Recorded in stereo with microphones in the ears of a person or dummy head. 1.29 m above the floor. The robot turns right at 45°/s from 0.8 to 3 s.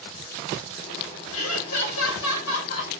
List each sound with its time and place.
1.3 s laughter: 75° left, 2.5 m; by 2.9 s 150° left, 2.5 m